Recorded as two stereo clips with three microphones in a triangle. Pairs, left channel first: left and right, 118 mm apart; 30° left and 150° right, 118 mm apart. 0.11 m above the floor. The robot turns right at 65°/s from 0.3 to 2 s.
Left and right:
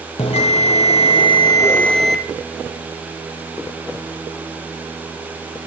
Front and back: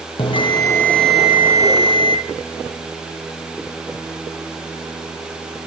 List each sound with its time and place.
0.2 s a bell: 65° left, 0.7 m; by 2.2 s 175° left, 0.7 m